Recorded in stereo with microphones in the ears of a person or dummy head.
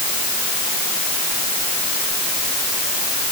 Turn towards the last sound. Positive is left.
No sound to turn to.